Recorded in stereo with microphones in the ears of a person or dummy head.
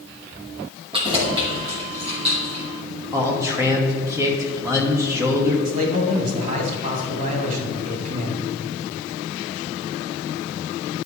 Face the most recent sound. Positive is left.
turn(degrees=-50)  # may be behind; listen again after turning